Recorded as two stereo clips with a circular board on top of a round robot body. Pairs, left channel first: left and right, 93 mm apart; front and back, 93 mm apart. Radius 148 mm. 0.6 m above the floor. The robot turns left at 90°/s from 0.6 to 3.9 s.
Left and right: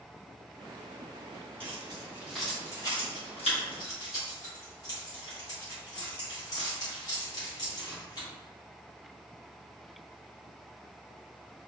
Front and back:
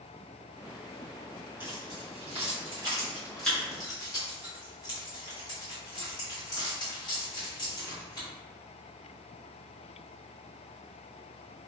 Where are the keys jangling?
110° right, 1.2 m; by 8.3 s 40° left, 1.2 m.